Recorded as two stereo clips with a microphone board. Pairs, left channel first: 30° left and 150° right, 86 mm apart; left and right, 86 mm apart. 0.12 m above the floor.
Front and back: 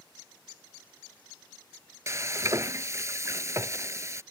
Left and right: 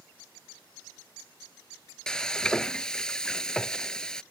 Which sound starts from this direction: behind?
Frying, at 2.1 s.